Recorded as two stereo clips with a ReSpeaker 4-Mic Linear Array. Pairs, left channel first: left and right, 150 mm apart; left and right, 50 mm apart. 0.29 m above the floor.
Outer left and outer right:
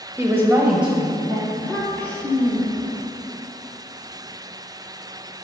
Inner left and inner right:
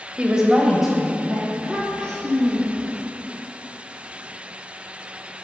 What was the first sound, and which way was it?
A woman speaking, 20° right (ahead or behind).